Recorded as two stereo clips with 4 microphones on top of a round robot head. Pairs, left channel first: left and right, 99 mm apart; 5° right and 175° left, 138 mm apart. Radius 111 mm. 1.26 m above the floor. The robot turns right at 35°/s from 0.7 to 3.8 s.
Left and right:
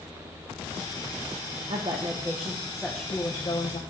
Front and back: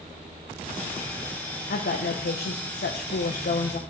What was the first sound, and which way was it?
A woman speaking, 40° right.